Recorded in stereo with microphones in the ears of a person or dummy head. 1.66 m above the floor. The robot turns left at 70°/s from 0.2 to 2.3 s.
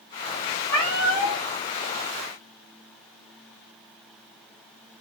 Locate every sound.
0.7 s a cat meowing: 15° left (ahead or behind), 0.9 m; by 1.4 s centre (ahead or behind), 0.9 m